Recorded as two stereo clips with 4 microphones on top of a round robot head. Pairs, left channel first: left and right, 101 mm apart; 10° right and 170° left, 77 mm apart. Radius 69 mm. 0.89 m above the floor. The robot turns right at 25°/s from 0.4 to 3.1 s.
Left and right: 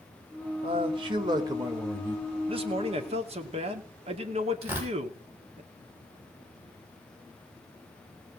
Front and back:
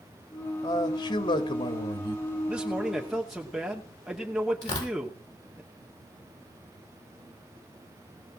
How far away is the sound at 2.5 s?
About 2.5 m.